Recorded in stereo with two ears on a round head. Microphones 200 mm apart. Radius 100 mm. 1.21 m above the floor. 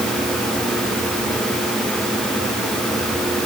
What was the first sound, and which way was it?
Only background noise.